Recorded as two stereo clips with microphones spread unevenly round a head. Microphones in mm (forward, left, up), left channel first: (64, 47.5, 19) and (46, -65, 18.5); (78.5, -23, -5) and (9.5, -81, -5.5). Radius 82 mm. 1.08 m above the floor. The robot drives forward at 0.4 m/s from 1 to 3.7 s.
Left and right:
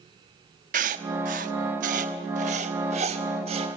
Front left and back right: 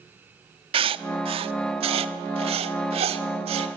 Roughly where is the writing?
Behind right.